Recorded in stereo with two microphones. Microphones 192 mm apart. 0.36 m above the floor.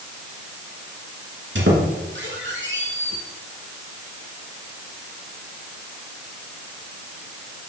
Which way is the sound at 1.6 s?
80° right.